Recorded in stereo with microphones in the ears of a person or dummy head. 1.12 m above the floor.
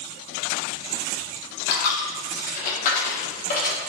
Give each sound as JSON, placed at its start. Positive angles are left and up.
{"t": 1.7, "sound": "a dropped coin", "side_deg": 50, "distance_m": 1.0}